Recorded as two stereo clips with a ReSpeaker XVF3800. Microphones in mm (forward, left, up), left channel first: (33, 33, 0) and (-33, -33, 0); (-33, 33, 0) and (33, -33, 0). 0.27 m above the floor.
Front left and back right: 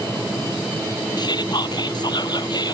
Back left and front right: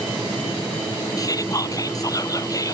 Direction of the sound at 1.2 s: 85° left.